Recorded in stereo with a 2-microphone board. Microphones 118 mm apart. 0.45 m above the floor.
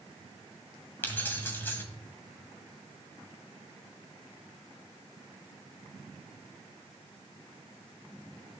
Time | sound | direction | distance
1.0 | keys jangling | 15° left (ahead or behind) | 2.5 m